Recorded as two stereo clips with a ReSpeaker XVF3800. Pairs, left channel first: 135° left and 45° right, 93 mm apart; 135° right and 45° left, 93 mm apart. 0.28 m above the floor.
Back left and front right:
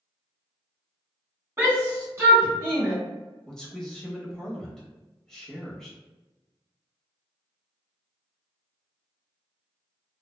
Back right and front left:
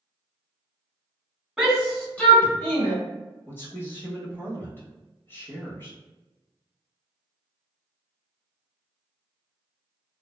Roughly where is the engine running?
I don't hear an engine running.